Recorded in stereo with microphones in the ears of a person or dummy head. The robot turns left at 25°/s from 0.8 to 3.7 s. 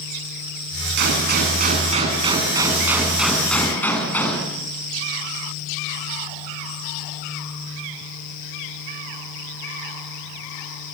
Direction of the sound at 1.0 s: 125° right.